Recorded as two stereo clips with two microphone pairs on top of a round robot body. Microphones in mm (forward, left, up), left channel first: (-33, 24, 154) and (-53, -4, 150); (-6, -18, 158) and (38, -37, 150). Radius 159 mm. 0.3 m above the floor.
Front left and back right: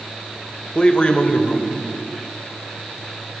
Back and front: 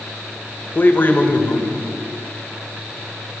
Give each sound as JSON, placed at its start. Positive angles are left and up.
{"t": 0.8, "sound": "a man speaking", "azimuth_deg": 115, "distance_m": 1.8}